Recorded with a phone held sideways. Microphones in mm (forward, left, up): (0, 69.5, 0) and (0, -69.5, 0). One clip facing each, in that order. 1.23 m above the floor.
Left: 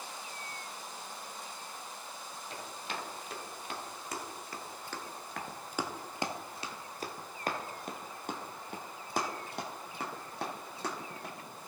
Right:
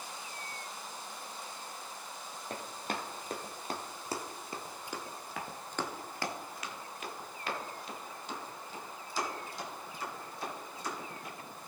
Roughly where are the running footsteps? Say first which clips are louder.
Right 4 dB; right.